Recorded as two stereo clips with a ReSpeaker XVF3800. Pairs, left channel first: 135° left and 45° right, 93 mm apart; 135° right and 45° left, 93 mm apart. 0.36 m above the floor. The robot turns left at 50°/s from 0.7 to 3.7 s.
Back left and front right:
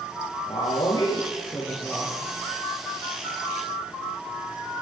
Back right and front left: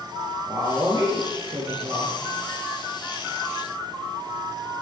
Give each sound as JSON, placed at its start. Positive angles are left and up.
{"t": 0.5, "sound": "a woman speaking", "azimuth_deg": 110, "distance_m": 6.5}